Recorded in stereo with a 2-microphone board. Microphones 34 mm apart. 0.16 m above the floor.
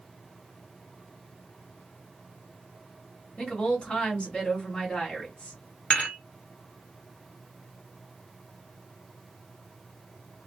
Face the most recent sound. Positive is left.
turn(degrees=35)  # may be behind; listen again after turning